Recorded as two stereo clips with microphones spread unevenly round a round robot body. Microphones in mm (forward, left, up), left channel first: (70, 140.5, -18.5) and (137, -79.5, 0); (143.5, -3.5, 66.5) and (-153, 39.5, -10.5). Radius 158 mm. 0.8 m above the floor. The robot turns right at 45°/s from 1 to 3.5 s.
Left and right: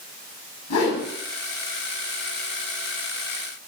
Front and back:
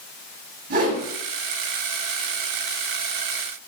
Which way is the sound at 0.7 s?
115° left.